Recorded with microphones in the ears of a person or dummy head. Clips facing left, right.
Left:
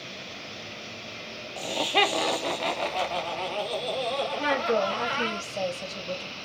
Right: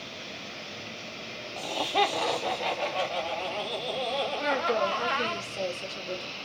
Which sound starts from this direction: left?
A woman speaking, at 4.4 s.